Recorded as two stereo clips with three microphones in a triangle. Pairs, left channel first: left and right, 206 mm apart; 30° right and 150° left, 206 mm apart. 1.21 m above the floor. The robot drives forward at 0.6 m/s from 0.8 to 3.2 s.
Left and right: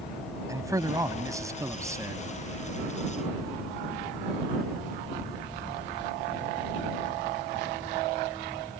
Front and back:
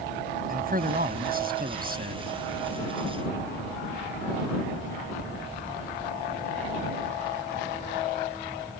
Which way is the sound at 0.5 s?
165° right.